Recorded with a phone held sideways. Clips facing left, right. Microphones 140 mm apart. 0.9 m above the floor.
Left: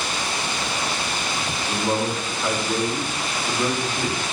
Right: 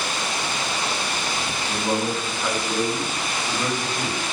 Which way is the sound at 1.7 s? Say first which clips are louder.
Left 1 dB; centre (ahead or behind).